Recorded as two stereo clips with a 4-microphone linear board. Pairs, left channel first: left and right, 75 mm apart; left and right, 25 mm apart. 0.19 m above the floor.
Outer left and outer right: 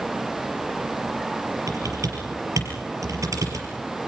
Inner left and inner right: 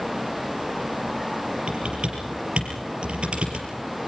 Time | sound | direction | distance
1.7 | typing on a keyboard | 55° right (ahead or behind) | 5 m